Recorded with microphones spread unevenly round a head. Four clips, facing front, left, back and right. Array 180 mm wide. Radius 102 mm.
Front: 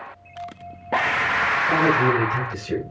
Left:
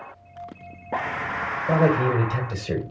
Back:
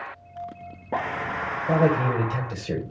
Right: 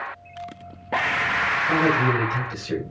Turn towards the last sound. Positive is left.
turn(degrees=140)